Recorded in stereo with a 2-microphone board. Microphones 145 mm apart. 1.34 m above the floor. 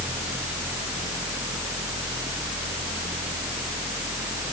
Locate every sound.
Only background noise.